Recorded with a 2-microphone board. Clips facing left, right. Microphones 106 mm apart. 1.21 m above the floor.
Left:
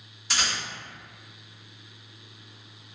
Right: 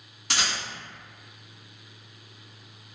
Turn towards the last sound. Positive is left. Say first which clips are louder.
# right 1 dB
turn(degrees=-70)  # may be behind; listen again after turning